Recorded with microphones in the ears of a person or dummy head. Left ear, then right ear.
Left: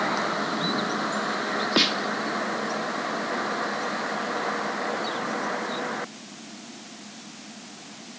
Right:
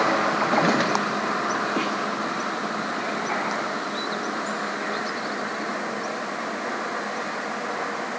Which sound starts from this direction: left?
A snare drum, at 1.8 s.